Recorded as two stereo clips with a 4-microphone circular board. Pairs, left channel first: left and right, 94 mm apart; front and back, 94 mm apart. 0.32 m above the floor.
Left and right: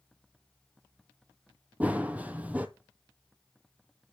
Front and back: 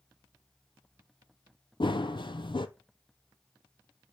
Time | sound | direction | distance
1.8 | running footsteps | 20° right | 0.5 m